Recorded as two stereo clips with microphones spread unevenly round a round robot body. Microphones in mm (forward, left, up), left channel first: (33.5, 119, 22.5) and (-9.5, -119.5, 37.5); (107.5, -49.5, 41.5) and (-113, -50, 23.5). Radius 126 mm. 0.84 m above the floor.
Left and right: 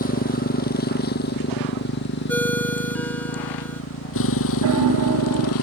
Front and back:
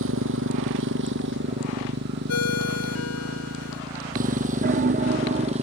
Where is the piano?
135° right.